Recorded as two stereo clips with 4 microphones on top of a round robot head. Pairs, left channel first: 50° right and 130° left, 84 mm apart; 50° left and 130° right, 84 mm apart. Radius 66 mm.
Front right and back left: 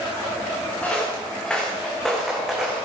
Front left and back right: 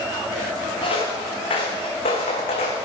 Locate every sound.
0.8 s footsteps: 25° left, 3.5 m; by 2.8 s 50° left, 2.5 m